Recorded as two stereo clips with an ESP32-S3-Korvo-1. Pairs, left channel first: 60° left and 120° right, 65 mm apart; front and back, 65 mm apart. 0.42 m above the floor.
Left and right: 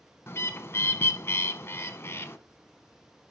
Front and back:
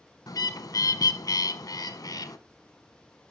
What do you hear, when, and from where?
0.3 s a bird: 10° left, 0.7 m